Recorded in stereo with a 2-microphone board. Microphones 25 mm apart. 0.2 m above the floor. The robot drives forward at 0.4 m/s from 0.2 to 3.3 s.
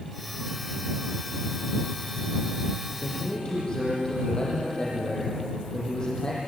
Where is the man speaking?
30° left (ahead or behind), 7.5 m.